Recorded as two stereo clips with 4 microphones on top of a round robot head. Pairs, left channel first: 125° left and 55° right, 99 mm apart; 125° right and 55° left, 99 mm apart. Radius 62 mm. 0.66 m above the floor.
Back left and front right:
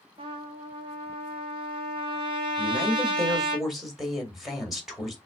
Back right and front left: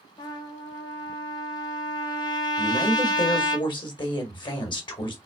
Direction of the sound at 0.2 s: 85° right.